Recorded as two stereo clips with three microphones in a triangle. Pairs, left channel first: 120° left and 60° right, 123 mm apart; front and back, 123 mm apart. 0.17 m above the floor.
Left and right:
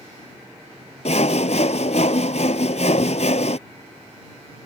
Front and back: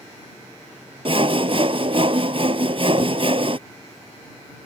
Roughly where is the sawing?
Behind left.